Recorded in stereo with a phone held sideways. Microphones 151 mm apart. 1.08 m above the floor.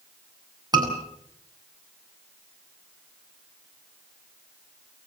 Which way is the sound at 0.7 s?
25° right (ahead or behind).